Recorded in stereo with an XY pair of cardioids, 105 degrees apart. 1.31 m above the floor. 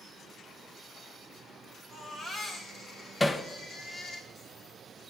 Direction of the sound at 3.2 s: 20° left.